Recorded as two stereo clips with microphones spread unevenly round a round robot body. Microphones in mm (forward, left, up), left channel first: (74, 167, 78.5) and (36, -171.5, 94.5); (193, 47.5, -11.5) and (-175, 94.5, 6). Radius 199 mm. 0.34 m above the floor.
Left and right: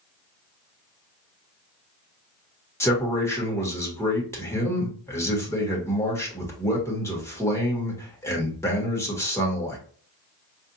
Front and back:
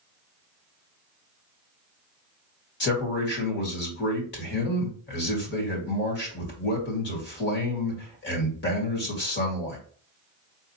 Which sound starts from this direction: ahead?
A man speaking, at 2.8 s.